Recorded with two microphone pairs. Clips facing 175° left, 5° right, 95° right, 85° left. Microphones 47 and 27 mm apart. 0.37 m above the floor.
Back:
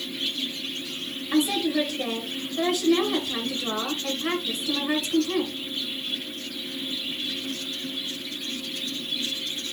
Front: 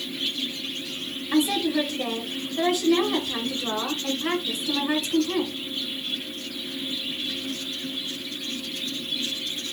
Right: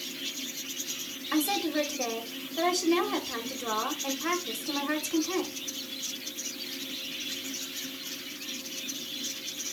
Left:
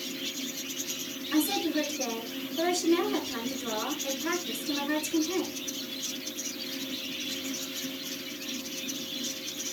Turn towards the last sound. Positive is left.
turn(degrees=-95)